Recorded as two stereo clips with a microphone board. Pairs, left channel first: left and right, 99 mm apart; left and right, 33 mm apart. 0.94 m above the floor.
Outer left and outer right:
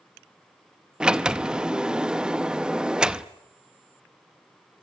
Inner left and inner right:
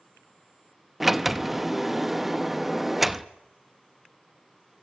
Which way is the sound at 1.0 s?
10° right (ahead or behind).